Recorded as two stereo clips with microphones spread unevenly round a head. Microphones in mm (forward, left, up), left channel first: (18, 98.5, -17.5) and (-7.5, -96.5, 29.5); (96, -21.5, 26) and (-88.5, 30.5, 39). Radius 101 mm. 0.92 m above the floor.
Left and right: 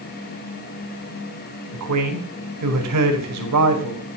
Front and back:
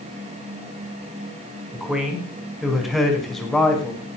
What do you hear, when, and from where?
1.7 s a man speaking: 110° right, 4.5 m; by 4.0 s 100° right, 6 m